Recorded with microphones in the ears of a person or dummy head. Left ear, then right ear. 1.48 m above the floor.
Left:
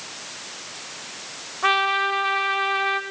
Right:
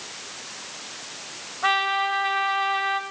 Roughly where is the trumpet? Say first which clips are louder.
Left 2 dB; centre.